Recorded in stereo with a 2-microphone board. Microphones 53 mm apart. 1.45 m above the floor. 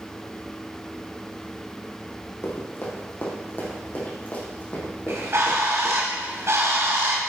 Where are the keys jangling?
I don't hear keys jangling.